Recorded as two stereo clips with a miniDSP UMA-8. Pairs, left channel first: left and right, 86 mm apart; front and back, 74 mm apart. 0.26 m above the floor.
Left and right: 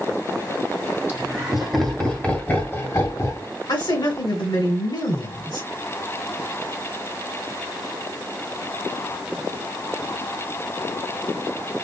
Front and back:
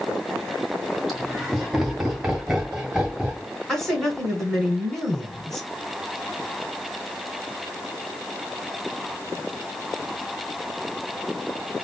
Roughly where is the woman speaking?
Left.